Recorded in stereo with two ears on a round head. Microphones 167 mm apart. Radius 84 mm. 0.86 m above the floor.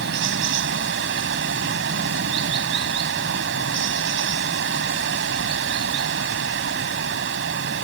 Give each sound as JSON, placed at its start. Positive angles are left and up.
{"t": 0.0, "sound": "running water", "side_deg": -70}